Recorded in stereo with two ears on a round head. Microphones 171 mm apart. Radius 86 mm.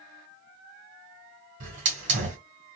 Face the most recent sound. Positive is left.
turn(degrees=-40)  # may be behind; listen again after turning